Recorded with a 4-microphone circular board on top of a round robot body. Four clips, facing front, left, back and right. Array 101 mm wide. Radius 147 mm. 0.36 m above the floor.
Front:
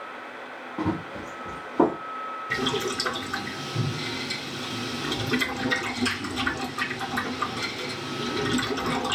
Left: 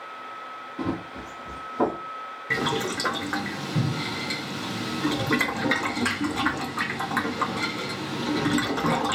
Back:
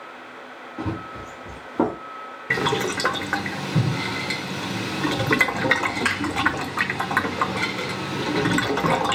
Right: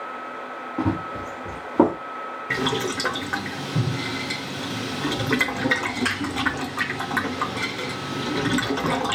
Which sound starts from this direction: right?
Running footsteps, at 0.8 s.